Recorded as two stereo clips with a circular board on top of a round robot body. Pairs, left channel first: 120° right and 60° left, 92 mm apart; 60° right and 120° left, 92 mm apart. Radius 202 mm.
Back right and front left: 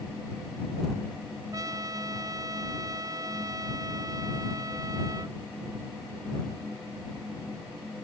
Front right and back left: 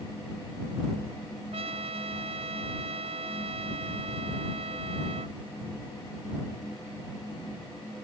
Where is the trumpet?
115° left.